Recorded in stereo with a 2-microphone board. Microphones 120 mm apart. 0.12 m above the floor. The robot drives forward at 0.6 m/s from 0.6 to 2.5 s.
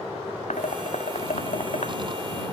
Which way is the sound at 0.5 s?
75° left (ahead or behind).